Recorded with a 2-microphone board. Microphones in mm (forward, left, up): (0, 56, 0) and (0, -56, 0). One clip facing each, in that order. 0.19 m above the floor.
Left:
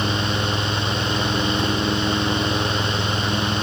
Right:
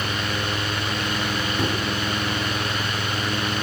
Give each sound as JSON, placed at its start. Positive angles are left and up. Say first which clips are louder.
{"t": 1.6, "sound": "a microwave", "louder": "left 1 dB", "side_deg": -40, "distance_m": 1.0}